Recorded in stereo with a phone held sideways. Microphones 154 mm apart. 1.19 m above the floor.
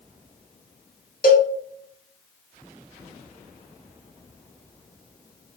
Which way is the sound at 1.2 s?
70° left (ahead or behind).